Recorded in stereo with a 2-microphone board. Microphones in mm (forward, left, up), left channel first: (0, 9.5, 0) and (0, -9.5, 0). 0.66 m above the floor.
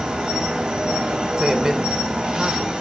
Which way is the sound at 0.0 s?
60° right (ahead or behind).